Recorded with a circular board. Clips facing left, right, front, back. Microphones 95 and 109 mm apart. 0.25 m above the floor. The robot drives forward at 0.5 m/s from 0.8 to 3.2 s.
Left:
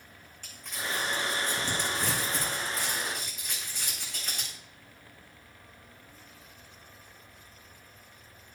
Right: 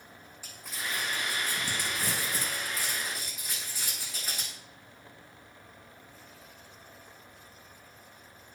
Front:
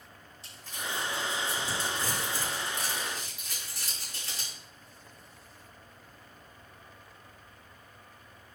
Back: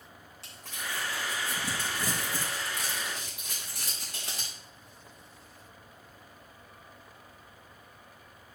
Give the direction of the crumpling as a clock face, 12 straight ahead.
6 o'clock.